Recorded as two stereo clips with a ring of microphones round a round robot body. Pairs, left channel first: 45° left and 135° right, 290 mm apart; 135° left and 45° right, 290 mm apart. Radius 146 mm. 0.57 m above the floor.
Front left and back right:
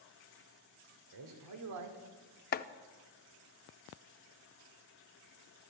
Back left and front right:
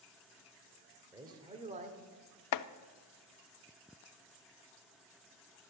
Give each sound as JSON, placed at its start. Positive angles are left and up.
{"t": 1.1, "sound": "a man speaking", "azimuth_deg": -125, "distance_m": 1.9}
{"t": 2.5, "sound": "chopping", "azimuth_deg": 105, "distance_m": 0.5}